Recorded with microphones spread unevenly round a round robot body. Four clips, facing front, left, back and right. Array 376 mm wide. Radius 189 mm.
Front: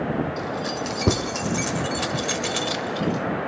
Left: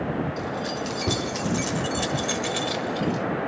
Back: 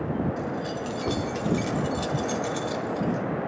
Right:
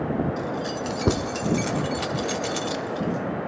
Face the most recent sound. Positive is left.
turn(degrees=40)